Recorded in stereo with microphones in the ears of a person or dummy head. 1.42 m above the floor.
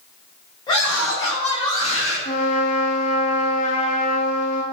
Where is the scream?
20° left (ahead or behind), 8.5 m; by 2.1 s 35° left (ahead or behind), 7.5 m.